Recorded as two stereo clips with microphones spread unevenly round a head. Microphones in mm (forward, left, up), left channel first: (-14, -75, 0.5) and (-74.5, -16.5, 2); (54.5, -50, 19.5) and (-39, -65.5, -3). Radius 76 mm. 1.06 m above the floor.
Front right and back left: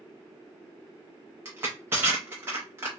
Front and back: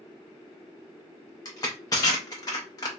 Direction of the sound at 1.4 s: 65° left.